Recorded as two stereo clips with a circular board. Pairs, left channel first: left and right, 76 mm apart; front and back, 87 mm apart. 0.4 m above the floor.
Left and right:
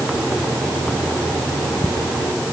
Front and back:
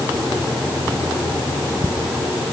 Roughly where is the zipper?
I don't hear a zipper.